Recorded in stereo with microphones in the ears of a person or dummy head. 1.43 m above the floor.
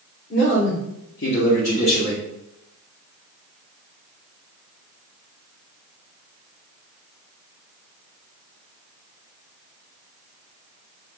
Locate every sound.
0.3 s a man speaking: 60° left (ahead or behind), 1.4 m; by 2.2 s 20° left (ahead or behind), 1.3 m